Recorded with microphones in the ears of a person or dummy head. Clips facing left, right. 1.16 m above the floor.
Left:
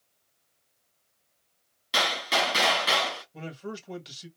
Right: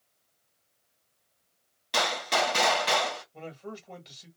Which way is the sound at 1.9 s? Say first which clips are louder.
Right 1 dB; 5° left (ahead or behind).